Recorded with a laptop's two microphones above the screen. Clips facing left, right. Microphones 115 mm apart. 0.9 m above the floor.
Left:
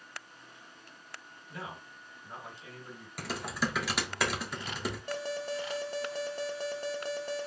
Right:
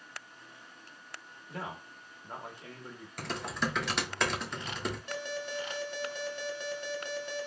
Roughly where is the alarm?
Left.